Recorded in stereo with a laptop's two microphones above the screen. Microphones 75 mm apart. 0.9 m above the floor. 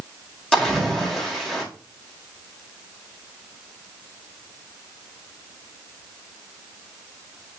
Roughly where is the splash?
Centre.